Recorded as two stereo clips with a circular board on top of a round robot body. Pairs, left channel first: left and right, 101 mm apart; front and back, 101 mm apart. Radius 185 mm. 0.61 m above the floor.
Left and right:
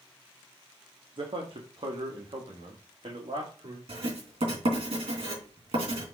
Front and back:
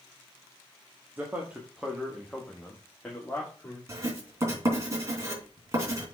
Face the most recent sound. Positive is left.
turn(degrees=-120)